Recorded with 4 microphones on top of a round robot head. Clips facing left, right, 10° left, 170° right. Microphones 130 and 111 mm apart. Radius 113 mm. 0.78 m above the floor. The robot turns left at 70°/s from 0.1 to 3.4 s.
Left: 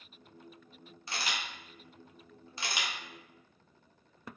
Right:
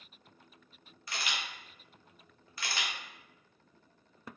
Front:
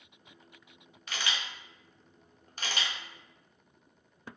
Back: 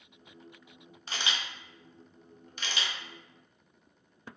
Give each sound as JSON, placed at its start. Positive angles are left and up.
{"t": 1.1, "sound": "a camera shutter", "azimuth_deg": 140, "distance_m": 1.1}